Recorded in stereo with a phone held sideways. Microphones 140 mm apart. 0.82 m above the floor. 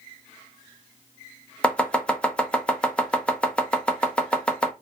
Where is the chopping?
10° left (ahead or behind), 0.6 m.